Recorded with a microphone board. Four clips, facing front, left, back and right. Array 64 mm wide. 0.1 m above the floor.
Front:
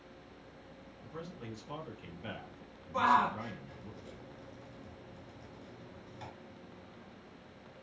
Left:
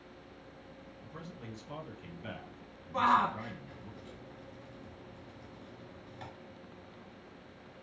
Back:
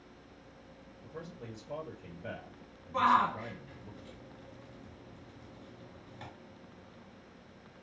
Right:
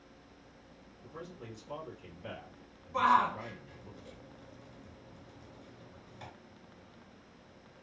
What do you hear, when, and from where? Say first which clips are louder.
1.0 s a man speaking: right 2 dB, even; 20° left, 2.5 m
2.9 s a shout: right 1 dB, back 1 dB; 145° left, 1.7 m